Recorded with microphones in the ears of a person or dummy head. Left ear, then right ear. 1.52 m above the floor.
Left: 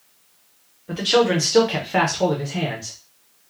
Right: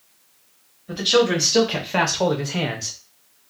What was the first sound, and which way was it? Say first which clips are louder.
A man speaking: even; 25° left (ahead or behind).